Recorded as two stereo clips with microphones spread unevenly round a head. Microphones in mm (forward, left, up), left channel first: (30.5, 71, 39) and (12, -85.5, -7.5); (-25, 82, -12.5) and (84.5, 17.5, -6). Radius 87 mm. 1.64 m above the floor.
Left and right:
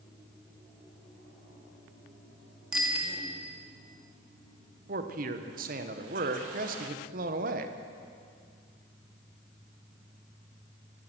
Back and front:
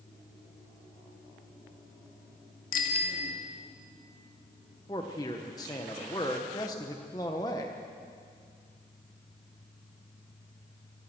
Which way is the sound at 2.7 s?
175° left.